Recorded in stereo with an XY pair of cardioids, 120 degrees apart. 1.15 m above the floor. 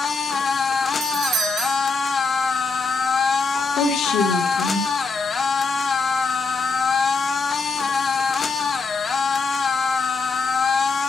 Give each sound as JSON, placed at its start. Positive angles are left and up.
{"t": 0.0, "sound": "a machine running", "azimuth_deg": 30, "distance_m": 1.3}
{"t": 1.0, "sound": "a doorbell", "azimuth_deg": -65, "distance_m": 1.8}
{"t": 3.5, "sound": "a woman speaking", "azimuth_deg": 70, "distance_m": 2.5}